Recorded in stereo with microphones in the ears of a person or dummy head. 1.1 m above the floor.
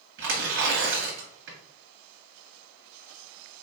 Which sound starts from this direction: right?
Tearing paper, at 0.2 s.